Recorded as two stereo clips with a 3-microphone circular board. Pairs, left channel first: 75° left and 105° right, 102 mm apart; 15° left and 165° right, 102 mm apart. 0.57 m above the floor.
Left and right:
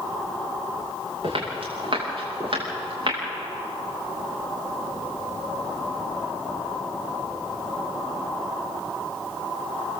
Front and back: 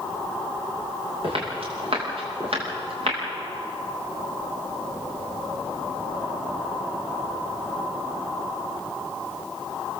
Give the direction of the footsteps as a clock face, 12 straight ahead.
5 o'clock.